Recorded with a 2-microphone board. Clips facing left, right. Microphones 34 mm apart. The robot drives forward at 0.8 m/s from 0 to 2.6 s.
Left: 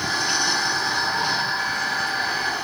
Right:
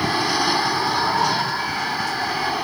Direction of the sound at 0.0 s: 30° right (ahead or behind).